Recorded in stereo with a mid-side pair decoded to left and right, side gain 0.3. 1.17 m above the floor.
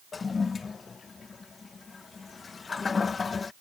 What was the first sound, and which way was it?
A toilet flushing, 55° left.